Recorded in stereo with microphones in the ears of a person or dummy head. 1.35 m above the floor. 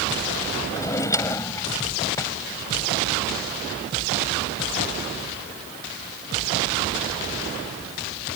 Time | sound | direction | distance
0.7 | a drawer | 15° left (ahead or behind) | ?